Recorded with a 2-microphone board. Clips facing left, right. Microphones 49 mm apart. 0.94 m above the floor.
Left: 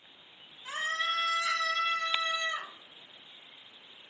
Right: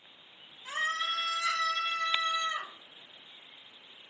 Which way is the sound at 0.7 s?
25° left (ahead or behind).